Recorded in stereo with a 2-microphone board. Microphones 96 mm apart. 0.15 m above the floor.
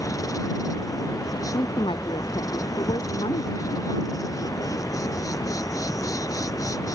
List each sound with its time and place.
0.0 s an insect: 35° left (ahead or behind)
1.5 s a woman speaking: 65° left (ahead or behind)